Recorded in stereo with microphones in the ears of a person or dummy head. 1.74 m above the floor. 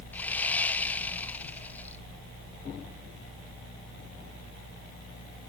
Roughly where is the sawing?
Centre.